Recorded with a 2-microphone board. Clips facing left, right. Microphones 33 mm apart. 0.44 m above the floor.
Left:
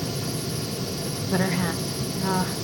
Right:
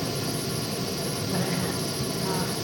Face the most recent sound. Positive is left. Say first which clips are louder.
# left 6 dB
turn(degrees=40)  # may be behind; listen again after turning